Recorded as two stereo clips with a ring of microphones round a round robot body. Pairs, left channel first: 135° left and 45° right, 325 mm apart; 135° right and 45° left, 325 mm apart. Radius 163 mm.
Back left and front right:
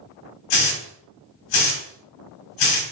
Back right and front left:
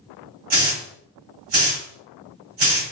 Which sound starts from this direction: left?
A hiss, at 0.5 s.